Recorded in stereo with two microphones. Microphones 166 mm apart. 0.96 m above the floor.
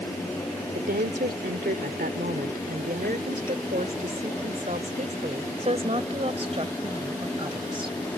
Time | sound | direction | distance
0.7 | a woman speaking | 85° right | ?